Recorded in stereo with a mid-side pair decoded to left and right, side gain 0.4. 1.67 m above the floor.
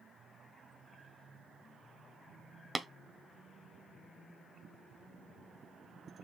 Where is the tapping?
Straight ahead, 0.9 m.